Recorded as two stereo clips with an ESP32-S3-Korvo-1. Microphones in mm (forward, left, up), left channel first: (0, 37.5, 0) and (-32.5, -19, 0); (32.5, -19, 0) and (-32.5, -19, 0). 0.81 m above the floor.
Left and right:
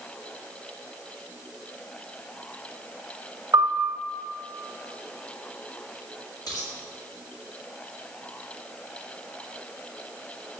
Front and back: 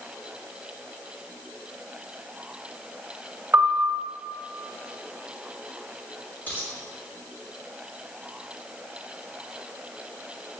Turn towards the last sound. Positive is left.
turn(degrees=65)